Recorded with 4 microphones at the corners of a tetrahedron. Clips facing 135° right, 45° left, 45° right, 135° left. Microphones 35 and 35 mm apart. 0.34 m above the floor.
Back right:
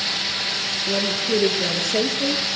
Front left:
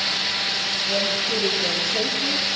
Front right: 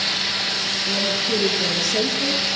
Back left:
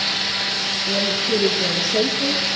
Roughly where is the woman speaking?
Behind right.